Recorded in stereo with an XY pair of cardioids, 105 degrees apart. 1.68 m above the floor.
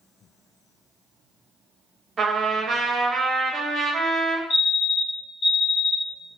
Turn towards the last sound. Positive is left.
turn(degrees=70)